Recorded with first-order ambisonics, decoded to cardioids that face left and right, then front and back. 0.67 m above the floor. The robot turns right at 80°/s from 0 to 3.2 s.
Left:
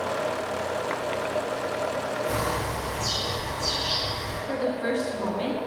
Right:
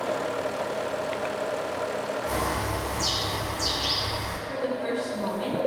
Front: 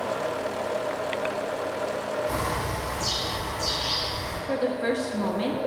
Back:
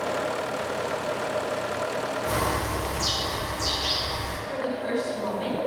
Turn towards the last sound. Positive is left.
turn(degrees=25)